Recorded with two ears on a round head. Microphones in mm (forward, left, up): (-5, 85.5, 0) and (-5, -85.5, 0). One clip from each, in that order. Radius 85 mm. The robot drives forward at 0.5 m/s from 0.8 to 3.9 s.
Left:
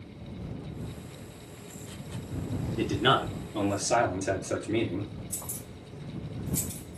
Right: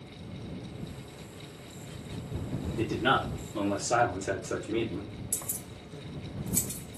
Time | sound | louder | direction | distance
2.8 | a man speaking | left 2 dB | 40° left (ahead or behind) | 2.5 m
5.3 | keys jangling | right 2 dB | 50° right (ahead or behind) | 1.5 m